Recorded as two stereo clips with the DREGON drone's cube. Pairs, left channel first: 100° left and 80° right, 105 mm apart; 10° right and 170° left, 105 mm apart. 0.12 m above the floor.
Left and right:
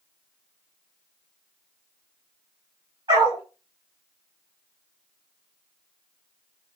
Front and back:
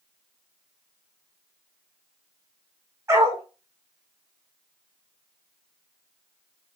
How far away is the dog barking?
About 2.5 m.